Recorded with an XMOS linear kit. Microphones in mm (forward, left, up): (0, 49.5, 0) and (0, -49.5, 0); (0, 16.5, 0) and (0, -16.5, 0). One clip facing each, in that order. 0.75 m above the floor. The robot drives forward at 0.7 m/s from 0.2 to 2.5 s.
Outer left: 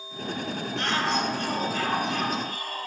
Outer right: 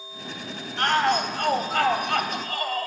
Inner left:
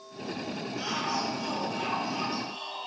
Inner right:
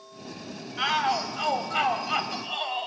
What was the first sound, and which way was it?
A shout, 60° right (ahead or behind).